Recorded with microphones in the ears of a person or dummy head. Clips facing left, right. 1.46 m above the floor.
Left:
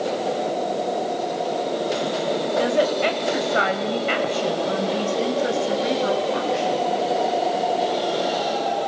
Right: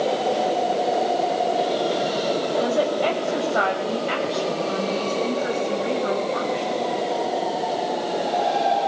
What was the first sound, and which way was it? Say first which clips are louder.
A woman speaking: left 2 dB; 30° left (ahead or behind).